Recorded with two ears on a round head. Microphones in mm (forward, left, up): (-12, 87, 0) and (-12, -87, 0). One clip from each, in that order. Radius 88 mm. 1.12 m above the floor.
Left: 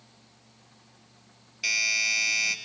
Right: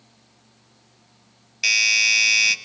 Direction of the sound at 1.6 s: 30° right (ahead or behind).